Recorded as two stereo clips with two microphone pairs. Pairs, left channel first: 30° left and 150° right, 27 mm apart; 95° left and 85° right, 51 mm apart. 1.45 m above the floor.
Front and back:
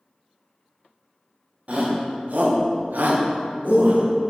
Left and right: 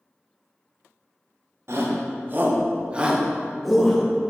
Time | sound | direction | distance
1.7 | a shout | 115° right | 1.2 m